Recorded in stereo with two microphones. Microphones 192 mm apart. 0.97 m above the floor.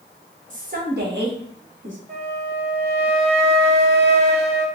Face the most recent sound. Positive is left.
turn(degrees=-55)  # may be behind; listen again after turning